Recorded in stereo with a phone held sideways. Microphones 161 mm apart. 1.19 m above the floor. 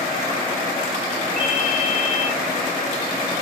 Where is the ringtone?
50° right (ahead or behind), 5 m.